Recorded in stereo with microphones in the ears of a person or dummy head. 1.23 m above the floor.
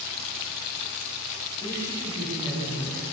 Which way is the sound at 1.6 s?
25° left (ahead or behind).